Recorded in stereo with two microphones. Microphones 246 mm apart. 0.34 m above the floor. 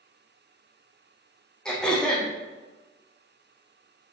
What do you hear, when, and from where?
1.6 s throat clearing: 5° left (ahead or behind), 3 m